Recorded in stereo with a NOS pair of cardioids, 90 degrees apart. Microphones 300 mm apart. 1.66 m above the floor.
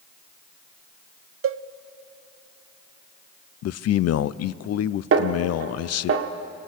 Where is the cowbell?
45° right, 0.6 m.